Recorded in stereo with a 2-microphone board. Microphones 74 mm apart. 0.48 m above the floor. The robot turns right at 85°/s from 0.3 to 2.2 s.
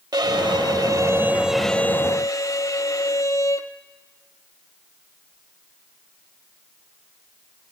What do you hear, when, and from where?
0.1 s a violin: 110° right, 0.9 m; by 3.7 s 50° left, 0.9 m